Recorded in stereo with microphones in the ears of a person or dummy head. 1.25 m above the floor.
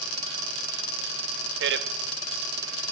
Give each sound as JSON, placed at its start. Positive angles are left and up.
{"t": 1.6, "sound": "a man speaking", "side_deg": -55, "distance_m": 0.8}